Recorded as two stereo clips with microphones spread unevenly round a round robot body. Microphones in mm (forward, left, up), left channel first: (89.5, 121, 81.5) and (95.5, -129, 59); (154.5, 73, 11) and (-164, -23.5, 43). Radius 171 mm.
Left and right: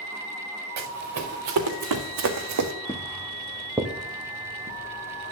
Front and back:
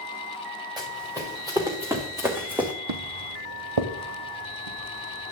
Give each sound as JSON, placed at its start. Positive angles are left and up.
{"t": 0.8, "sound": "running footsteps", "azimuth_deg": -85, "distance_m": 3.0}
{"t": 2.9, "sound": "footsteps", "azimuth_deg": 170, "distance_m": 1.3}